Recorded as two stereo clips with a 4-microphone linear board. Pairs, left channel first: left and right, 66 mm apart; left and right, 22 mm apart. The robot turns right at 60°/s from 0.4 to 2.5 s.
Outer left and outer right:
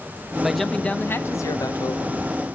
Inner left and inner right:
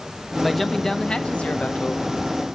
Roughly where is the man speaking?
Ahead.